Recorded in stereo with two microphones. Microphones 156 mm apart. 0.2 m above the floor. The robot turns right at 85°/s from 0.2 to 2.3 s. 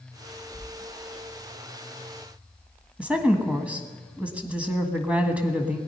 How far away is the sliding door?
About 6.5 m.